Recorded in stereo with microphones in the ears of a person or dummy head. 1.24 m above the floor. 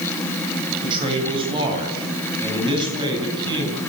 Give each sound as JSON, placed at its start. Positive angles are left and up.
{"t": 0.8, "sound": "a man speaking", "side_deg": -35, "distance_m": 8.5}